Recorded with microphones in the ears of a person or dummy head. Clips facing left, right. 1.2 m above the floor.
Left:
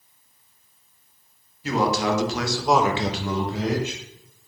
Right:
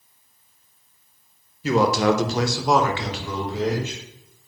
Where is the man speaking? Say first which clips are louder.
Right 4 dB; 65° right (ahead or behind), 0.9 m; by 4.0 s 60° left (ahead or behind), 1.1 m.